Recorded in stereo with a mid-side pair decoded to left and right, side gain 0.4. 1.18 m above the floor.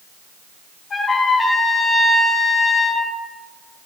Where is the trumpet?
40° left, 3 m.